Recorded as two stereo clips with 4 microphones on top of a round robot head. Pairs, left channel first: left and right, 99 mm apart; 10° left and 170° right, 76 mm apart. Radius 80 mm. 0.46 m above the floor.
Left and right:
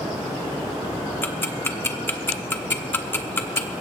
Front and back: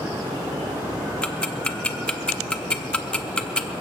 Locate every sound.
1.2 s ticking: 65° left, 1.2 m